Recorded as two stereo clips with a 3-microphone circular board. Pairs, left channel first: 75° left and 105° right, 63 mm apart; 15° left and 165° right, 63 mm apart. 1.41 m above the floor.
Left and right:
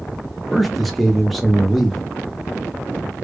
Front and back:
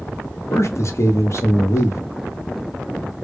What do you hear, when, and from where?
0.5 s a man speaking: 15° right, 0.8 m